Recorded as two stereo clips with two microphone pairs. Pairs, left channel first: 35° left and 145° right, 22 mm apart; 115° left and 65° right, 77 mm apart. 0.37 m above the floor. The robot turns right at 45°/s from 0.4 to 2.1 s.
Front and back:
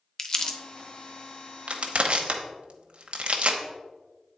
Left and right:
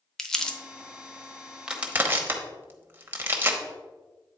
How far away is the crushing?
About 0.9 m.